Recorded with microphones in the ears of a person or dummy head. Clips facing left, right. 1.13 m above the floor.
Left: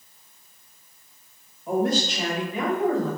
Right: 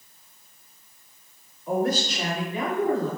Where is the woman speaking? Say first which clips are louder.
Left 1 dB; 20° left (ahead or behind), 1.8 m; by 3.1 s 40° left (ahead or behind), 2 m.